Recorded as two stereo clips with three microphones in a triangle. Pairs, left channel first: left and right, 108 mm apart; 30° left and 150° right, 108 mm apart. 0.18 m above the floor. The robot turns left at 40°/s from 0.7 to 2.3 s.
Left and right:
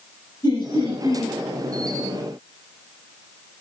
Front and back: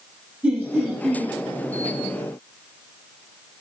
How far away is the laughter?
About 3.5 m.